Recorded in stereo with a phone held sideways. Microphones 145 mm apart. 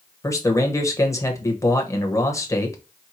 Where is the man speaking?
20° left (ahead or behind), 1.1 m.